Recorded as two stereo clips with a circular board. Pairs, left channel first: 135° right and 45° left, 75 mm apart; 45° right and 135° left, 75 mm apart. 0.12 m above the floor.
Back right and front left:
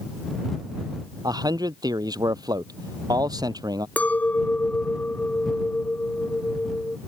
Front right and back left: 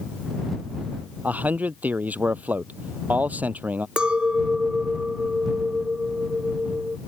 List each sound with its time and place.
1.2 s a man speaking: 70° left
4.0 s a clink: 165° right